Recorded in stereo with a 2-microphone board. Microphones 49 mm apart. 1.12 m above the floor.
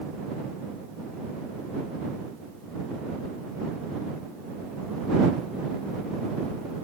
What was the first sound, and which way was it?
Only background noise.